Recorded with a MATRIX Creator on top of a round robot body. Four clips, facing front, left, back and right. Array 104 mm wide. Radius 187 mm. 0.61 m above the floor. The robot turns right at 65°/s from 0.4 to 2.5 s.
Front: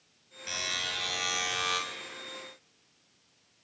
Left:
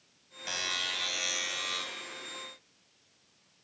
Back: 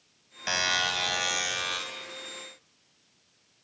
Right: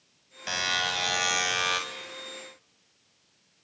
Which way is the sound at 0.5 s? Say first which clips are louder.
Right 8 dB, back 9 dB; 165° right.